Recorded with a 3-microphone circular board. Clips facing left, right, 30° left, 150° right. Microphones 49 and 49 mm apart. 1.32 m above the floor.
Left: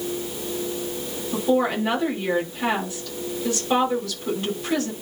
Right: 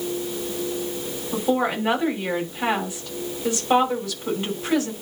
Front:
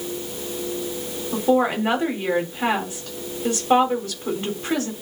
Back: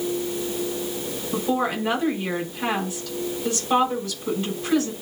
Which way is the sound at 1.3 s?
15° right.